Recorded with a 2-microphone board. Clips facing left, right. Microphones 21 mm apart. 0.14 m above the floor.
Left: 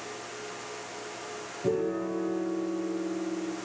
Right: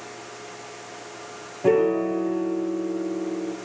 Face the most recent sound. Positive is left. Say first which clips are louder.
# right 9 dB
turn(degrees=-70)  # may be behind; listen again after turning